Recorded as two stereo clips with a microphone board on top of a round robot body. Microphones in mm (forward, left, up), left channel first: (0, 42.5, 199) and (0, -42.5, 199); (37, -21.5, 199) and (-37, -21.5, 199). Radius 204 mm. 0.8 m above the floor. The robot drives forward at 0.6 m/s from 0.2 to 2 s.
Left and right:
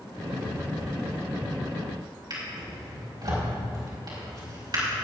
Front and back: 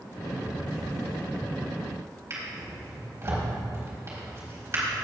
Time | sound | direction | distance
2.3 | a drawer | 130° right | 4 m